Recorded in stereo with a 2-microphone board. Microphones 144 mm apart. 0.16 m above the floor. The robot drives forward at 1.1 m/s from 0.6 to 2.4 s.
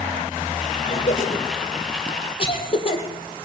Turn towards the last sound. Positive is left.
turn(degrees=40)  # may be behind; listen again after turning